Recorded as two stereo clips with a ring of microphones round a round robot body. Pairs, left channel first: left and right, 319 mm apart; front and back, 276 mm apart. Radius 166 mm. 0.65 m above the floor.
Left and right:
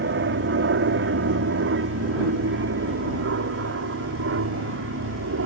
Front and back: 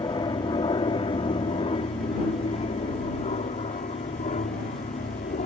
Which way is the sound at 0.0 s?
65° right.